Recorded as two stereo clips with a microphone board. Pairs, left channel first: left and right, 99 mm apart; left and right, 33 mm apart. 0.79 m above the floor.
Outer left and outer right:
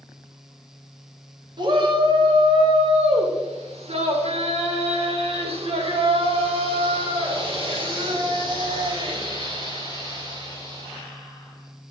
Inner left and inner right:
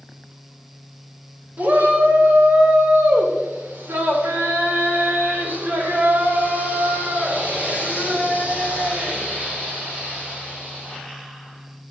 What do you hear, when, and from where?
1.6 s a shout: 50° right (ahead or behind), 2 m; by 11.0 s 45° right (ahead or behind), 5.5 m